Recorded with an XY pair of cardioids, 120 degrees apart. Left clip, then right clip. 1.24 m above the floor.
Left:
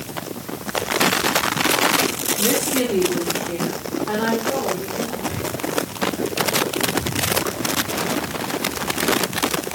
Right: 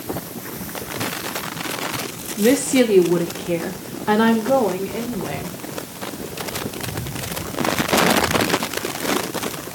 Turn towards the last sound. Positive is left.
turn(degrees=-50)